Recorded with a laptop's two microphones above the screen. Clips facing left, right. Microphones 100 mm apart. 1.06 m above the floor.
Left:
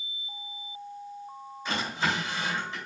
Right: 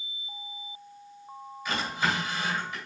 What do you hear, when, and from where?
1.6 s a drawer: 30° left (ahead or behind), 2.5 m